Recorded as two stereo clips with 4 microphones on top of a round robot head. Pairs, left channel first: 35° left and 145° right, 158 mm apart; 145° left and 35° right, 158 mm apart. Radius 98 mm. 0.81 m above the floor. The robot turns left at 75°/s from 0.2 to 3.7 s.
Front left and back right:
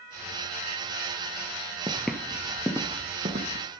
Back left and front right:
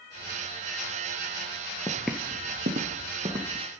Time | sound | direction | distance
1.9 | footsteps | 165° right | 0.8 m